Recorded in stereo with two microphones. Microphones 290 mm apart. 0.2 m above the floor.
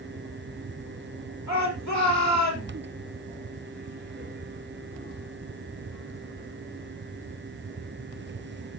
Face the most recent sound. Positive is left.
turn(degrees=70)  # may be behind; listen again after turning